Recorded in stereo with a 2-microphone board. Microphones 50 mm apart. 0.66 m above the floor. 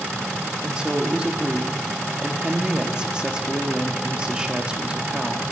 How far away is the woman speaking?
About 1.0 m.